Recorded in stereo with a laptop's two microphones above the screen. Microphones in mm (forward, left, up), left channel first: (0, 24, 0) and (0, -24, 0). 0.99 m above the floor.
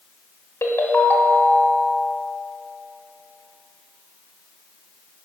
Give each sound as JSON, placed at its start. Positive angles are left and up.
{"t": 0.6, "sound": "a ringtone", "side_deg": 80, "distance_m": 1.2}